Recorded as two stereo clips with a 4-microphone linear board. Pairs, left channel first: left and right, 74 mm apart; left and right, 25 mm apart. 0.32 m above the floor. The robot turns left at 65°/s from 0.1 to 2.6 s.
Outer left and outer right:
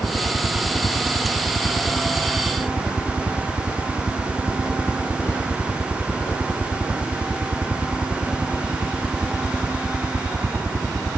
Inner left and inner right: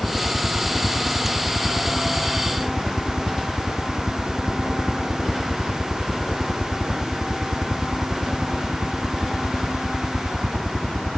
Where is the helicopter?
140° left; by 11.2 s 25° right.